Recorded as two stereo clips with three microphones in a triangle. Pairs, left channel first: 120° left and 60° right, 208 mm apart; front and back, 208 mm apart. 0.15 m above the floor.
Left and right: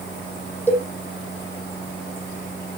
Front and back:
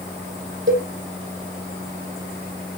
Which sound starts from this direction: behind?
A cowbell, at 0.7 s.